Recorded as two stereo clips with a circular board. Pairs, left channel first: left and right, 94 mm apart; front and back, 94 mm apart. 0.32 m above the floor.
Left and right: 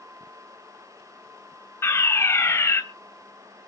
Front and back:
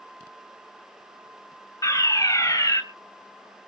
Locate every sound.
1.8 s a fire alarm: 35° left, 2.5 m